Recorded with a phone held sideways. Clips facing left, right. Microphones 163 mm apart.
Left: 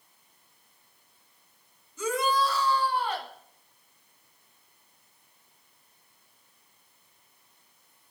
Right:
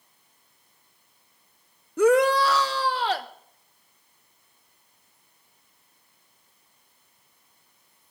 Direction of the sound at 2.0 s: 60° right (ahead or behind).